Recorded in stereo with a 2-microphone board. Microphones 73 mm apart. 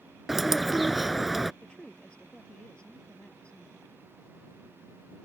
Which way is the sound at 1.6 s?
15° left (ahead or behind).